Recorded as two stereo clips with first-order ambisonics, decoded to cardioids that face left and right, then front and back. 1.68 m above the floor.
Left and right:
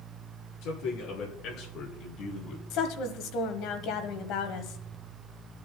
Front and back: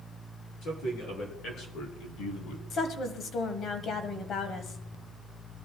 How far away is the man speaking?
About 4 m.